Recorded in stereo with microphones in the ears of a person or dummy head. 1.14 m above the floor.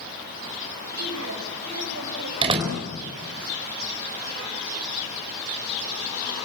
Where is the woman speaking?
85° right, 6.5 m.